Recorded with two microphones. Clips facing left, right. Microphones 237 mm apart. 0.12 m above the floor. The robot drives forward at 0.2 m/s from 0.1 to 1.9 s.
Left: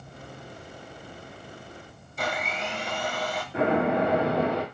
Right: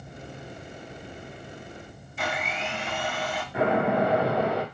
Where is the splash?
35° left (ahead or behind), 1.8 m.